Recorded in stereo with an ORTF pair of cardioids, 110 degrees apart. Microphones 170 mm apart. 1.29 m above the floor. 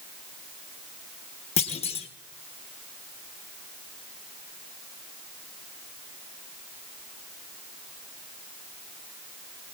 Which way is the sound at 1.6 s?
35° left.